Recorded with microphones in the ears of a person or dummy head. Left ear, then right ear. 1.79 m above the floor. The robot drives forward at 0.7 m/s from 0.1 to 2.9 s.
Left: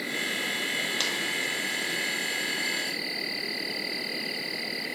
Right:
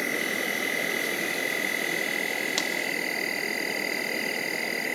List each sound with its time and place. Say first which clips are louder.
0.0 s an insect: right 2 dB; 40° right (ahead or behind); by 5.0 s 35° right (ahead or behind)